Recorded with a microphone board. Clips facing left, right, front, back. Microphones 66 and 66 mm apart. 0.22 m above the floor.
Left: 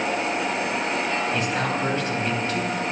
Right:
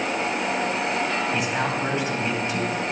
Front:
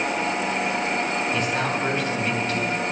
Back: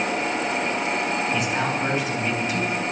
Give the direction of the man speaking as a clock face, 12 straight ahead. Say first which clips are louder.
Even, even; 4 o'clock.